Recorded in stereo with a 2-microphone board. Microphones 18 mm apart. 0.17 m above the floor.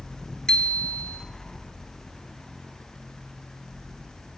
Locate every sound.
0.5 s a bicycle bell: 50° left (ahead or behind), 2 m